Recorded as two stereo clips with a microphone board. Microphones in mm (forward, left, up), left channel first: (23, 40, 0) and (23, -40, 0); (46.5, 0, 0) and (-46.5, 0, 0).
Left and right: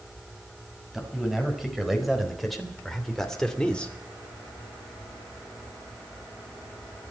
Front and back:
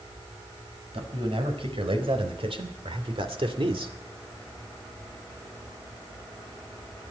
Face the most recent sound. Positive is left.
turn(degrees=165)